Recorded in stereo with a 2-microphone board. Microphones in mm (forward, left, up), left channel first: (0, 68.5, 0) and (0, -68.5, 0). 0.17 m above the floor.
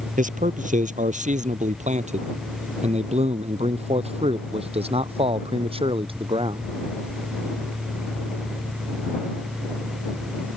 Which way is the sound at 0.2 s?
65° right (ahead or behind).